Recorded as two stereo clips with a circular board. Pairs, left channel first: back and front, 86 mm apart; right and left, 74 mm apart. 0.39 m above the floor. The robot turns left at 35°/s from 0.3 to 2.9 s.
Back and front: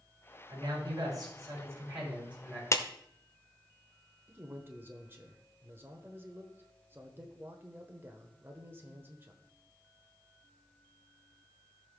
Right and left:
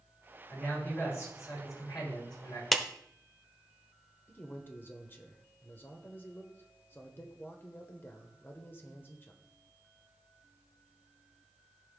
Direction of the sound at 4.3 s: 45° right.